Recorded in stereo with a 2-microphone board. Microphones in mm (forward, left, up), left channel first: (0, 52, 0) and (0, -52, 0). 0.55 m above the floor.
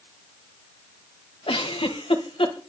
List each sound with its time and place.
1.5 s a giggle: 60° left (ahead or behind), 2 m